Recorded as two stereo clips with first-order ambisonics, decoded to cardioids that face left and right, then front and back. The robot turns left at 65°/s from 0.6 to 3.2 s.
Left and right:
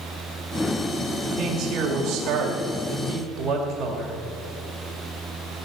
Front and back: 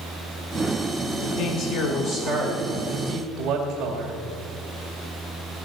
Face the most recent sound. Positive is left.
turn(degrees=-130)